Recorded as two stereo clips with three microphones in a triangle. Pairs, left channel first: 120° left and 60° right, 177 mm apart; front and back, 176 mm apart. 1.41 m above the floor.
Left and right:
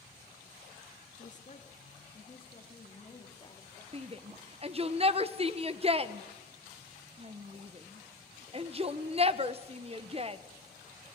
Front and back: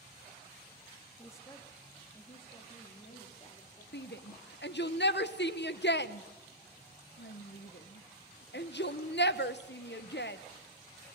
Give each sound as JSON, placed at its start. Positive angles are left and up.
{"t": 1.2, "sound": "a woman speaking", "azimuth_deg": 75, "distance_m": 1.8}
{"t": 3.9, "sound": "a shout", "azimuth_deg": -5, "distance_m": 1.2}